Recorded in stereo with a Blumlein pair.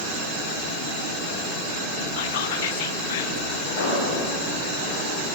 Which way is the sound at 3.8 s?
70° left.